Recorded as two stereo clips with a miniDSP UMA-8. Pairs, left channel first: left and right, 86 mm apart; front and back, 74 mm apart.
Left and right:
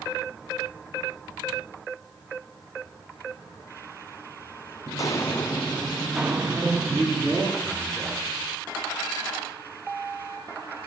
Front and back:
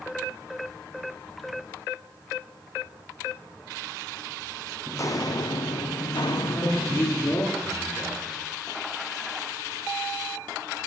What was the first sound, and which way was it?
Footsteps, 50° left.